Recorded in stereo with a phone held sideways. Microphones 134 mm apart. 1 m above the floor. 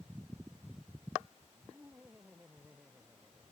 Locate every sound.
1.5 s laughter: 10° right (ahead or behind)